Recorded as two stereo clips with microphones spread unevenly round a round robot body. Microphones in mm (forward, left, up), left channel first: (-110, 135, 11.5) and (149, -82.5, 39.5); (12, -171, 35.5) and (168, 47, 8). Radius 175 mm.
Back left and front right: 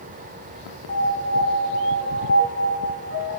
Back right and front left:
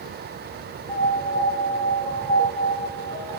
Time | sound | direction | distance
0.9 | a piano | 90° left | 3 m